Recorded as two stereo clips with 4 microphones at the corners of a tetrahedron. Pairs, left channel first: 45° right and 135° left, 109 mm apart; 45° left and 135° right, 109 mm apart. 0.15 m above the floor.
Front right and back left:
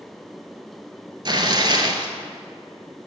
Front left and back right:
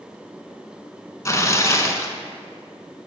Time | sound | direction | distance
1.2 | tearing paper | 100° left | 0.7 m